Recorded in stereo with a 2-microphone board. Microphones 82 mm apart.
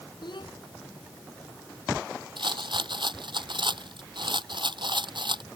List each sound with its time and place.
0.2 s a child speaking: 70° left (ahead or behind)
2.4 s a rattle: 70° right (ahead or behind)